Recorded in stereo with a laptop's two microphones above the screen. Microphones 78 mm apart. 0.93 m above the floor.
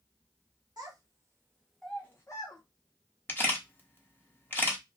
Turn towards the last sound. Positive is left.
turn(degrees=25)  # may be behind; listen again after turning